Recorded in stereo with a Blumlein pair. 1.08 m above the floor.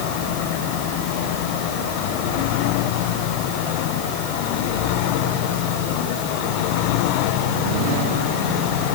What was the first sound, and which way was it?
Only background noise.